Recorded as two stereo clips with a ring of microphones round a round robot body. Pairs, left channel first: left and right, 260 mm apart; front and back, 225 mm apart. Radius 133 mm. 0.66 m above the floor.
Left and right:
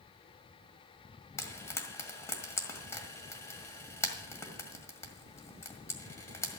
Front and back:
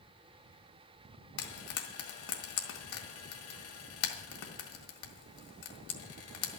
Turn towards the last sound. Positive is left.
turn(degrees=10)